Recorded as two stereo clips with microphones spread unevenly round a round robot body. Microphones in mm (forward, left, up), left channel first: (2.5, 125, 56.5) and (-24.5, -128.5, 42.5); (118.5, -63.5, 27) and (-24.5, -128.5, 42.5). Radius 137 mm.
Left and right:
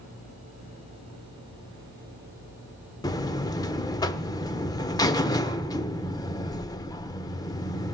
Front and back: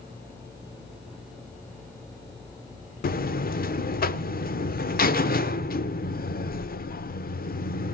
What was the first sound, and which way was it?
A buzzer, 10° left.